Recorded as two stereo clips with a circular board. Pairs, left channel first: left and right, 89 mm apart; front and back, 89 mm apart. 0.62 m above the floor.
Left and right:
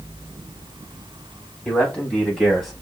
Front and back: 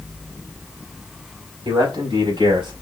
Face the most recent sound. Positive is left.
turn(degrees=180)